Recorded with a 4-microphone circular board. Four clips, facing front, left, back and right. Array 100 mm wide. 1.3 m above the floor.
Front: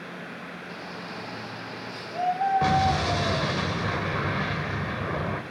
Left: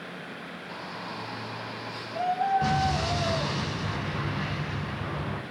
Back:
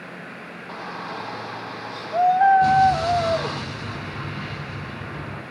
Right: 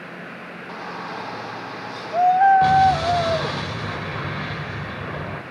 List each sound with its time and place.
0.7 s a shout: 130° right, 4 m
2.6 s an explosion: 25° right, 6.5 m